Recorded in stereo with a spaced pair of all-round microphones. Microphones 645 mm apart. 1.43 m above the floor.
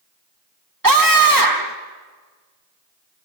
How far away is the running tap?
I don't hear a running tap.